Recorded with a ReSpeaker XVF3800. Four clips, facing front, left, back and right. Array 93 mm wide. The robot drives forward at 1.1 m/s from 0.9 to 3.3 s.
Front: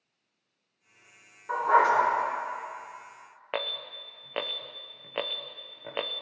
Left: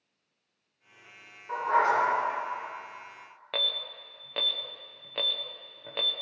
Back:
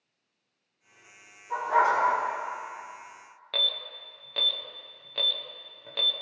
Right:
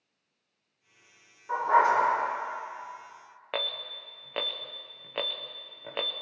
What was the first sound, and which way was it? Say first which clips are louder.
A dog barking: right 2 dB, front 2 dB; 5° right.